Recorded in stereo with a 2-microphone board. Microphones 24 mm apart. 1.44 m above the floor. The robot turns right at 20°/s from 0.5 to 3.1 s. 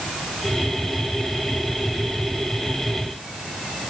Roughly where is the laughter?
I don't hear laughter.